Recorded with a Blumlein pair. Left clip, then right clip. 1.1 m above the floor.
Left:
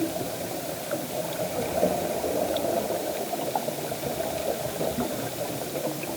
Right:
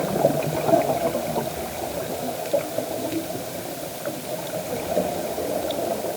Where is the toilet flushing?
I don't hear a toilet flushing.